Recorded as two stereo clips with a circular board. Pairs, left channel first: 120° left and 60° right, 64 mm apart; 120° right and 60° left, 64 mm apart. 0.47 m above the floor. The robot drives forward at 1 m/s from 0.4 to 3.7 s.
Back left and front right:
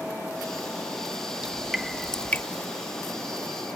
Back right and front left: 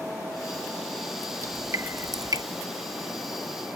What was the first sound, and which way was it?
Dripping, 20° left.